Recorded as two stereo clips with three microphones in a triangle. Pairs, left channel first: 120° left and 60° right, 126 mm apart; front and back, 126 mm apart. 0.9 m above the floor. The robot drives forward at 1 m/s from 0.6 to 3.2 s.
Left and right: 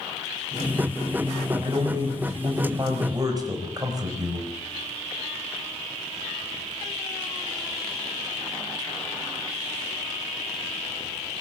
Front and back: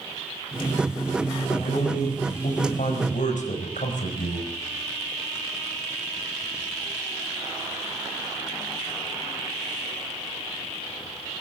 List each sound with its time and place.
1.4 s a man speaking: straight ahead, 6.5 m